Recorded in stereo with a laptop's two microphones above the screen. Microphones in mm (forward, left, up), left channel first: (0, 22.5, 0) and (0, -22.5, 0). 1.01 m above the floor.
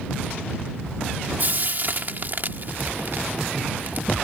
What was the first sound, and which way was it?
Frying, 50° right (ahead or behind).